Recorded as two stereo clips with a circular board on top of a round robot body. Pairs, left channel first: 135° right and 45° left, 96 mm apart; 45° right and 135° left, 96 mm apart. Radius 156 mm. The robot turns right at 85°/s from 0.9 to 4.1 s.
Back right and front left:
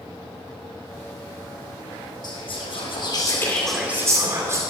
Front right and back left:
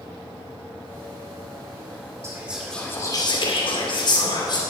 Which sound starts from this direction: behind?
Whispering, at 2.2 s.